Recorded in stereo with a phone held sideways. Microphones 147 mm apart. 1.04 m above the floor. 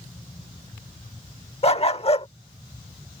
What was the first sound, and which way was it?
A dog barking, 45° left (ahead or behind).